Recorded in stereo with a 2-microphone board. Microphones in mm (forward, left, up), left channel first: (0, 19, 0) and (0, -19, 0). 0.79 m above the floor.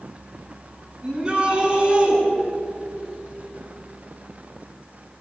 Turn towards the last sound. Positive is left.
turn(degrees=-20)  # may be behind; listen again after turning